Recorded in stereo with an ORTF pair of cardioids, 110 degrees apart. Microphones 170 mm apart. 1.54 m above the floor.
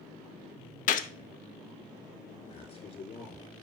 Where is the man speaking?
40° left, 4.5 m.